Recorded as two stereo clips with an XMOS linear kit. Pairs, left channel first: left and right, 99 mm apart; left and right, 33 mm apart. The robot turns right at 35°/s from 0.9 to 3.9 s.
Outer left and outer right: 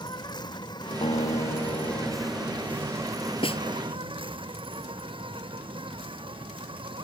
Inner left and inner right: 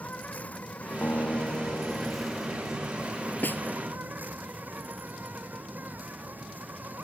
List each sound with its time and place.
0.0 s an insect: 135° left; by 7.0 s 120° right
1.0 s a guitar: 95° left; by 4.4 s 165° right
3.4 s a snare drum: 65° left (ahead or behind); by 3.6 s 70° left (ahead or behind)